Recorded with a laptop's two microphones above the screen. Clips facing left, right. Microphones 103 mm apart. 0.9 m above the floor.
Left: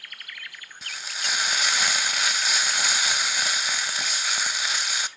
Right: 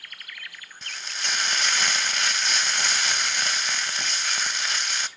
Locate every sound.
0.8 s frying: 5° left (ahead or behind), 0.6 m